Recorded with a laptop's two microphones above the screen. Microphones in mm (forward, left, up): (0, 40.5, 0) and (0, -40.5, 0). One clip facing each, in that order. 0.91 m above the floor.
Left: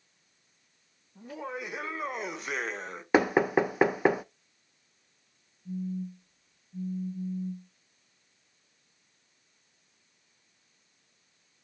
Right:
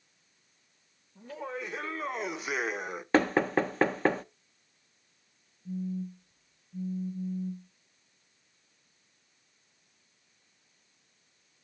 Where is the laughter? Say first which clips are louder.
Even; 15° left (ahead or behind), 1.6 m; by 3.0 s 15° right (ahead or behind), 1.3 m.